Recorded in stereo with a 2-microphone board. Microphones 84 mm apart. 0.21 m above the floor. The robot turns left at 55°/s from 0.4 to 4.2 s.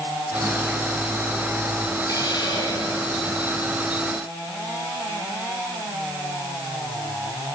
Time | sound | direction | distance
2.1 | a hiss | 130° left | 7.5 m